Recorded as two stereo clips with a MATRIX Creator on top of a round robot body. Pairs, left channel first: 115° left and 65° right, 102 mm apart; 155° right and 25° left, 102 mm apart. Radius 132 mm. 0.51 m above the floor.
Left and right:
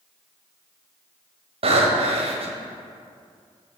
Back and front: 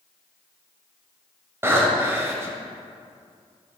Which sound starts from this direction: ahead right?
Breathing, at 1.6 s.